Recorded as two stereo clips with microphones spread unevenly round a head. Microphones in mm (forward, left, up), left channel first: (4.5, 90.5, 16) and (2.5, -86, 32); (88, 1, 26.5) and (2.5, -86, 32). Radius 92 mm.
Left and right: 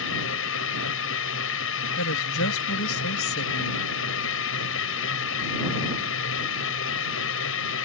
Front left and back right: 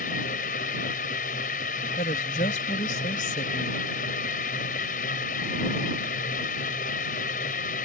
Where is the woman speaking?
90° left.